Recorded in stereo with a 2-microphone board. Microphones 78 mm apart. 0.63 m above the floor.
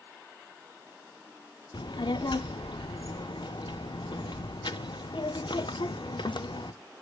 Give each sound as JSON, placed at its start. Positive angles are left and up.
{"t": 1.7, "sound": "a child speaking", "side_deg": 75, "distance_m": 0.5}